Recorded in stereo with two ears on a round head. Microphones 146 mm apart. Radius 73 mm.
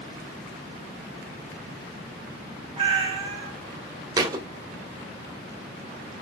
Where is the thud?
20° right (ahead or behind), 0.6 m.